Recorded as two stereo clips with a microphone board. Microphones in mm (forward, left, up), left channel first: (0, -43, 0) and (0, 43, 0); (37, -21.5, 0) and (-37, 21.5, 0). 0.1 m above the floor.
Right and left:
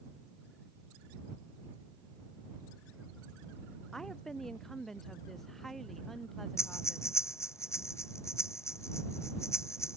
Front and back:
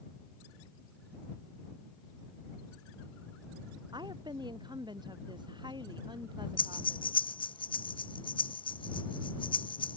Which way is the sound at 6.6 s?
35° right.